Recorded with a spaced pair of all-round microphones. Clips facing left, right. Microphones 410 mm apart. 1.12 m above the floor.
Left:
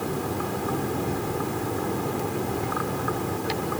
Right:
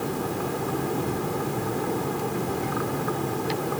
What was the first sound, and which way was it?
Only background noise.